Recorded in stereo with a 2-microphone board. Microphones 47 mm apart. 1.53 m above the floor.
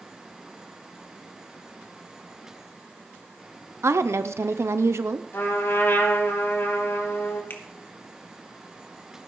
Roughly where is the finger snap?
Left.